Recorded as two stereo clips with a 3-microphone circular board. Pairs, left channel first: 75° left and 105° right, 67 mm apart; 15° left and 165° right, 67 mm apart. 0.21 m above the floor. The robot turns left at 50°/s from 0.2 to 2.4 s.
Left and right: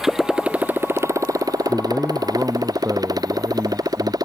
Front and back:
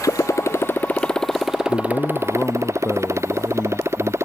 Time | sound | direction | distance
0.0 | a motorcycle | 20° right | ?
1.7 | a man speaking | 10° right | ?